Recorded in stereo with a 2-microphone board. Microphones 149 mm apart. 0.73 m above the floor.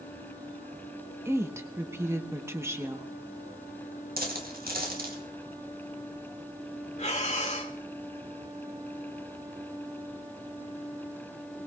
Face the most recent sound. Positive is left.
turn(degrees=50)  # may be behind; listen again after turning